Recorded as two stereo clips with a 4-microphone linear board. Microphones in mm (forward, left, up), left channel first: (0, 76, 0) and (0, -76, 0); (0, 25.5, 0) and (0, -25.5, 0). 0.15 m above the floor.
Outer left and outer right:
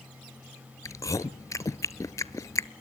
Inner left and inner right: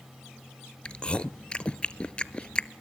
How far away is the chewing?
About 0.7 m.